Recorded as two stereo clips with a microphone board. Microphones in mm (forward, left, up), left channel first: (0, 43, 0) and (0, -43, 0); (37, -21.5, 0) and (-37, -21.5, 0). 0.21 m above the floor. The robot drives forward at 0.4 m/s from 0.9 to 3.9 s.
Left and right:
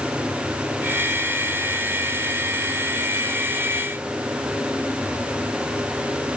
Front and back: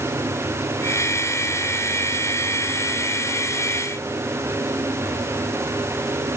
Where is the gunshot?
I don't hear a gunshot.